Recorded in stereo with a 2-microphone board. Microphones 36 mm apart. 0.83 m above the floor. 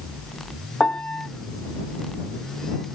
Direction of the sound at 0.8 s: 40° left (ahead or behind).